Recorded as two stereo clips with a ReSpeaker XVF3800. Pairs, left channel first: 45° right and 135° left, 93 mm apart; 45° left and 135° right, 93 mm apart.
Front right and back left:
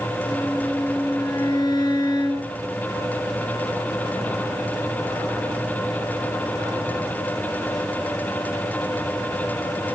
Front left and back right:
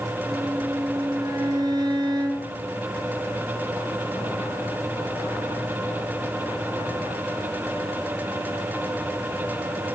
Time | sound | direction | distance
0.3 | a violin | 90° right | 2.5 m